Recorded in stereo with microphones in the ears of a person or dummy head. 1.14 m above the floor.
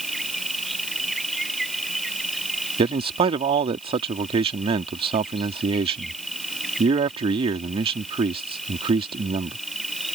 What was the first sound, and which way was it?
An insect, 5° right (ahead or behind).